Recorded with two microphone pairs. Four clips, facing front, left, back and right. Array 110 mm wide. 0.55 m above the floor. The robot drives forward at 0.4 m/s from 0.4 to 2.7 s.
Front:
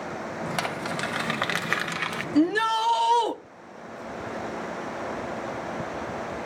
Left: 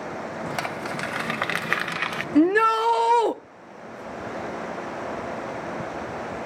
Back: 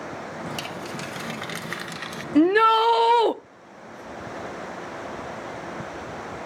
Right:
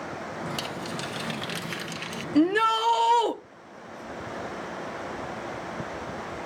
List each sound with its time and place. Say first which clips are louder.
0.6 s crumpling: left 4 dB, front 4 dB; 40° left, 1.3 m; by 2.2 s 70° left, 0.9 m
2.4 s a shout: left 3 dB, back 5 dB; 145° left, 0.6 m; by 3.4 s 155° left, 0.7 m